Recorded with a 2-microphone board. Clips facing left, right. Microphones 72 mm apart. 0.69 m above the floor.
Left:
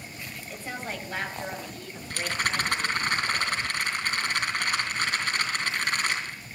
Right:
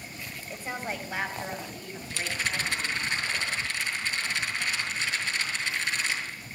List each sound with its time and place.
0.5 s a woman speaking: 15° right (ahead or behind), 3 m; by 3.0 s 5° right (ahead or behind), 6 m
2.1 s a rattle: 55° left (ahead or behind), 3 m